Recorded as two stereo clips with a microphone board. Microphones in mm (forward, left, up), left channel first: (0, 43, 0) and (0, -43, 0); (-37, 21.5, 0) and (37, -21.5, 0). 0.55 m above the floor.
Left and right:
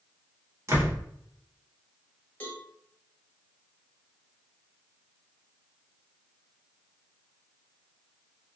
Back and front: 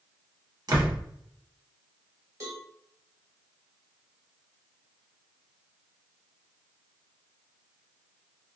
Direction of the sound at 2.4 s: 20° left.